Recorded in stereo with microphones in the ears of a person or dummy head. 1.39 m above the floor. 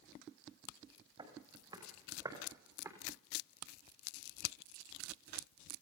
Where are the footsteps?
25° right (ahead or behind), 5.5 m; by 2.9 s 15° right (ahead or behind), 4.5 m.